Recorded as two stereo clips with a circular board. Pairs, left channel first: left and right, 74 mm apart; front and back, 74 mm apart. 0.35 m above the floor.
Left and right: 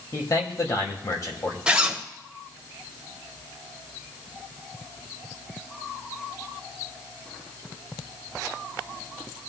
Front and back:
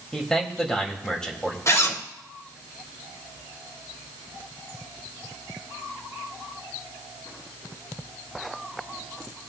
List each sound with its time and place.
0.1 s a man speaking: 80° left, 1.7 m
1.7 s a zipper: 20° right, 1.1 m